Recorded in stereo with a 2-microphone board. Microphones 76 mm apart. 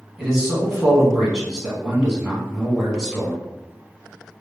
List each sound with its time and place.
0.2 s a man speaking: 5° right (ahead or behind), 1.2 m